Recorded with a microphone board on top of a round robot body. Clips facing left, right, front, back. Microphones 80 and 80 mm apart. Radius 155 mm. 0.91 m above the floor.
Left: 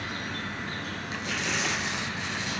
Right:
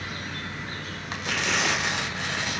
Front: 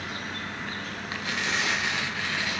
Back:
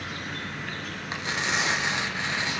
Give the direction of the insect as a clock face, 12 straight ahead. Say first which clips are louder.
Left 1 dB, even; 11 o'clock.